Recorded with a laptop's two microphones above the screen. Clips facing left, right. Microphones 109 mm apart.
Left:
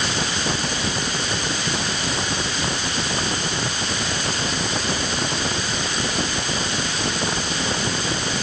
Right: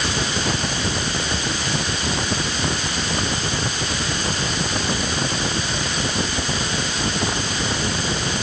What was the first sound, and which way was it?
Only background noise.